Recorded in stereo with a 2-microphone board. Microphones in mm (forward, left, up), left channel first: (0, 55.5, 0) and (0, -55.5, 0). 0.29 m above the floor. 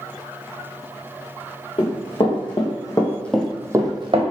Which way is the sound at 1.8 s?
50° left (ahead or behind).